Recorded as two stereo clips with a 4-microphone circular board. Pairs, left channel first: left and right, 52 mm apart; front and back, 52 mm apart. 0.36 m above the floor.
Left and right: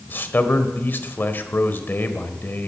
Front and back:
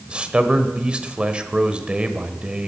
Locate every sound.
0.1 s a man speaking: 120° left, 1.2 m